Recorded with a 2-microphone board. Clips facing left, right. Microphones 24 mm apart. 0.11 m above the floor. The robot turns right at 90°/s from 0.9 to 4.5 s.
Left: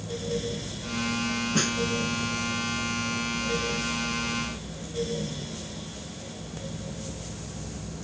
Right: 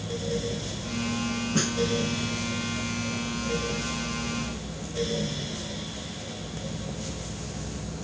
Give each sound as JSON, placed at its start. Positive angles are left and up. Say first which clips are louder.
{"t": 1.6, "sound": "a snare drum", "louder": "even", "side_deg": 10}